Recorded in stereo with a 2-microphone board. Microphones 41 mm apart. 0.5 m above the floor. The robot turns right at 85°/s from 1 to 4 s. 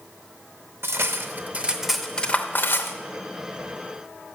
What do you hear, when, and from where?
0.8 s cutlery clinking: 70° right (ahead or behind), 0.7 m; by 3.0 s 70° left (ahead or behind), 0.7 m